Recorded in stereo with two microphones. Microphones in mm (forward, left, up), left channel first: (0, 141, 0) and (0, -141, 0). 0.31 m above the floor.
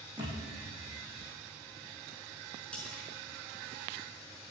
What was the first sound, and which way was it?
A thud, 15° right (ahead or behind).